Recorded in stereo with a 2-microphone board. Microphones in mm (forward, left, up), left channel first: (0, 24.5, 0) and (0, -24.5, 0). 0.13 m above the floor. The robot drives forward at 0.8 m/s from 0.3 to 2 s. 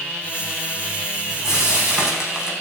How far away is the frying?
About 7.5 m.